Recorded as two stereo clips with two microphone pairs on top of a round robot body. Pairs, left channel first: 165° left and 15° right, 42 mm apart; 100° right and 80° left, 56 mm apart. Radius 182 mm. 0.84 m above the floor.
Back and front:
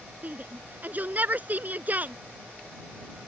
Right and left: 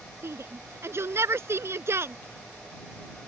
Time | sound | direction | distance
0.2 | a shout | 35° left | ?